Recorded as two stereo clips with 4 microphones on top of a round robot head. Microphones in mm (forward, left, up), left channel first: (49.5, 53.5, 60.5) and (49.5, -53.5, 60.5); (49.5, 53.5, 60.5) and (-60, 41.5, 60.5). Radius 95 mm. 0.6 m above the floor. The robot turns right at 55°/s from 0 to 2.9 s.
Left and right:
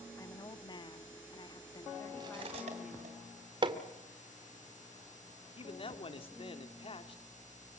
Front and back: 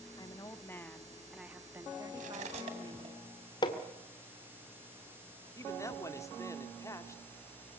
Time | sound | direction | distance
0.2 | a woman speaking | 40° left | 1.5 m
2.1 | cutlery clinking | 155° right | 2.5 m
3.6 | hammering | 45° right | 1.7 m
5.5 | a man speaking | 65° left | 2 m